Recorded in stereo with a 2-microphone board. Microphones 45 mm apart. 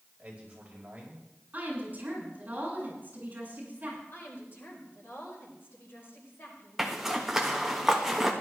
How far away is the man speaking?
About 5 m.